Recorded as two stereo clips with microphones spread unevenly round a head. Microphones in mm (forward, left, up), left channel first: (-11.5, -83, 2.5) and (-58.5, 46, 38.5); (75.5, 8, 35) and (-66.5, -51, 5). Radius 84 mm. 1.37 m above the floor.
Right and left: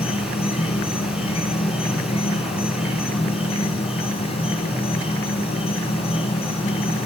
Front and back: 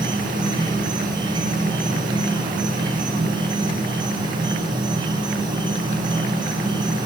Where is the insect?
105° right, 3 m.